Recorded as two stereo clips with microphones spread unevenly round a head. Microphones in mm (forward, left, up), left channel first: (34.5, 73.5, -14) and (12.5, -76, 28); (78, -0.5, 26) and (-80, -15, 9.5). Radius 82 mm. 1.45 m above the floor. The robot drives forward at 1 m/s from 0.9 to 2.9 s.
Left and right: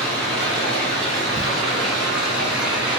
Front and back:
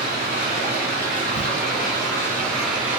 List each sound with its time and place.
0.0 s running water: 15° right, 2.5 m; by 3.0 s 100° right, 1.4 m
1.4 s a crack: 165° left, 0.8 m; by 1.5 s 170° left, 0.9 m